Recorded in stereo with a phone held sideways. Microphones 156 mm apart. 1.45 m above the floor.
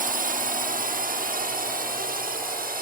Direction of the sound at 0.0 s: 60° right (ahead or behind).